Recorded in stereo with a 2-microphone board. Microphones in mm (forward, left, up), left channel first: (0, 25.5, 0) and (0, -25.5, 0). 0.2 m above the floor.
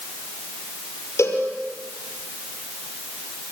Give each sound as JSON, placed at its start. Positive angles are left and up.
{"t": 1.2, "sound": "a cowbell", "side_deg": 60, "distance_m": 5.5}